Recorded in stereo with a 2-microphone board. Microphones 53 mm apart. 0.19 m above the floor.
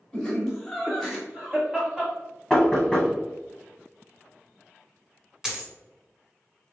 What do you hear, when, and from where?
0.1 s laughter: 15° left (ahead or behind), 1.6 m; by 2.1 s 25° right (ahead or behind), 1.3 m
2.5 s knocking: 10° left (ahead or behind), 1.0 m
5.4 s a dropped coin: 10° right (ahead or behind), 0.8 m